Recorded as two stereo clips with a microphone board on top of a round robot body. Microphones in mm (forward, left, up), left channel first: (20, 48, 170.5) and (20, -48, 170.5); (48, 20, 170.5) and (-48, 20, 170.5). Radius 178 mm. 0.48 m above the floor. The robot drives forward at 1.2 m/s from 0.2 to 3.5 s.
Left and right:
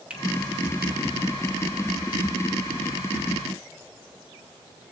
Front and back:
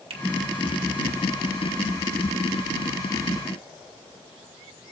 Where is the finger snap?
170° right, 2.5 m.